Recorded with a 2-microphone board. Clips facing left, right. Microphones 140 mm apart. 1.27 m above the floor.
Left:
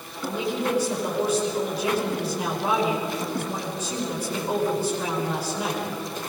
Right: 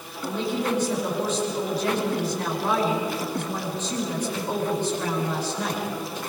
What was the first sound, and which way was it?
A woman speaking, 10° left (ahead or behind).